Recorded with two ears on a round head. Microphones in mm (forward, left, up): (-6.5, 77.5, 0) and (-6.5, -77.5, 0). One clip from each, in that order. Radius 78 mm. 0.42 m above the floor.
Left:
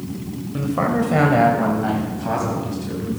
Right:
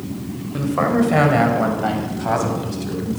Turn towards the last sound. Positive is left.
turn(degrees=-35)  # may be behind; listen again after turning